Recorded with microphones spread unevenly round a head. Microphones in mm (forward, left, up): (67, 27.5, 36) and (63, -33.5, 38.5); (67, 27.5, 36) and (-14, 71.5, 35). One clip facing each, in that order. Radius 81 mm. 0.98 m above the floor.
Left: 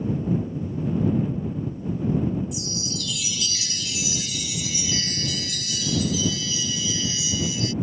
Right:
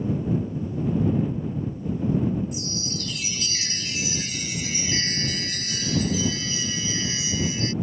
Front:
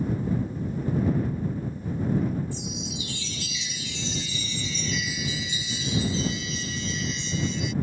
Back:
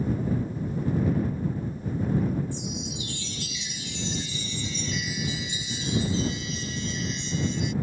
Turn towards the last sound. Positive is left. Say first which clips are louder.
# even, even
turn(degrees=-40)